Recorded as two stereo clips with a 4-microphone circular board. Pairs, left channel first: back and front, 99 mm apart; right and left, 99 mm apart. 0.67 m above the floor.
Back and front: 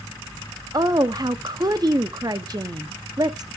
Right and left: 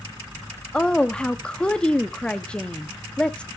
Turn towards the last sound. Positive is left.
turn(degrees=-15)